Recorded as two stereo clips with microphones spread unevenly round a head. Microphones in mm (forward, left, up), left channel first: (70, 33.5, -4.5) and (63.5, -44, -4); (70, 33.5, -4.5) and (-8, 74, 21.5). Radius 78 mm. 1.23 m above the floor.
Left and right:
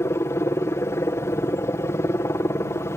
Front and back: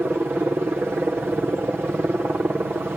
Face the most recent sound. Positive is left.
turn(degrees=80)